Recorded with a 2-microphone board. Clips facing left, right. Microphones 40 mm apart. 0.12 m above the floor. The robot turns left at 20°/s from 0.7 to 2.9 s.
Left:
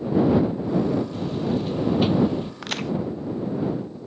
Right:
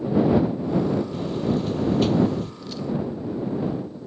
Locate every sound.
1.1 s a buzzer: centre (ahead or behind); by 2.5 s 25° left (ahead or behind)
2.6 s a crack: 65° left (ahead or behind); by 2.9 s 75° left (ahead or behind)